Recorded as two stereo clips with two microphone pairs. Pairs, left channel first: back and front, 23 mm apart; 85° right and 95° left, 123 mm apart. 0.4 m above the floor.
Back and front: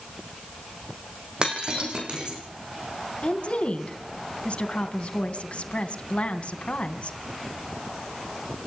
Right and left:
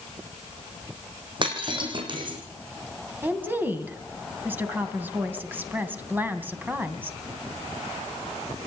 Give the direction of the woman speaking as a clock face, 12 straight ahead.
6 o'clock.